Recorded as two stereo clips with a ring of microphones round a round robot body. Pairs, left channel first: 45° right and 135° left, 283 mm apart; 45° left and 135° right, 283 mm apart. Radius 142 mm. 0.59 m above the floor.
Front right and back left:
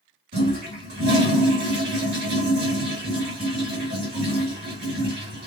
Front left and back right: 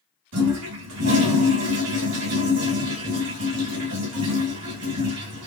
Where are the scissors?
I don't hear scissors.